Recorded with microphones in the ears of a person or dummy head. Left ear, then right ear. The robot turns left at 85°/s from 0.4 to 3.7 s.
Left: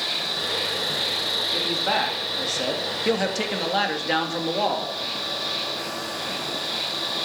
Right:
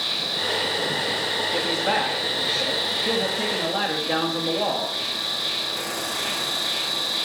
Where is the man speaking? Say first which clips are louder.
Right 1 dB; 145° right, 2.5 m; by 5.0 s 30° left, 2.5 m.